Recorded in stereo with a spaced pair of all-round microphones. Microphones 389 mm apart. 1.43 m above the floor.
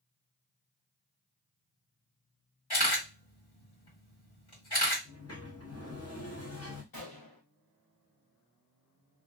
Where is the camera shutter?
70° left (ahead or behind), 1.5 m.